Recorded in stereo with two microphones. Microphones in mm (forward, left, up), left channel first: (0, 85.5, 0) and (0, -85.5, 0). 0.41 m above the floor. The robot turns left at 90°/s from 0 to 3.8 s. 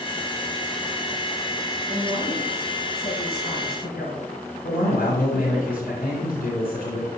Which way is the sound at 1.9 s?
125° right.